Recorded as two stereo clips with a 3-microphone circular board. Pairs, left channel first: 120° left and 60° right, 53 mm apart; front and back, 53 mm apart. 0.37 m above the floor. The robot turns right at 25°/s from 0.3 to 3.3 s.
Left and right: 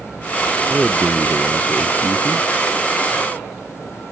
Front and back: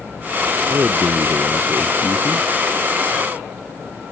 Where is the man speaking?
150° right; by 2.5 s 105° right.